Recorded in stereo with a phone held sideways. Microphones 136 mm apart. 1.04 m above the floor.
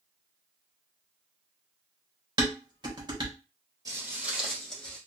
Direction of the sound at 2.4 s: 30° right (ahead or behind).